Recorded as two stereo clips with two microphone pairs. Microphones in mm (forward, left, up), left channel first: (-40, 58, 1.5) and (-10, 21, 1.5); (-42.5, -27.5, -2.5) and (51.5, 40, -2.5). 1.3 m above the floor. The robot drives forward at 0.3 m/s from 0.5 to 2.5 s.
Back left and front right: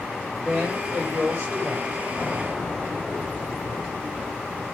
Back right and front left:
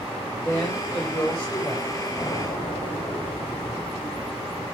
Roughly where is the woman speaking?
Ahead right.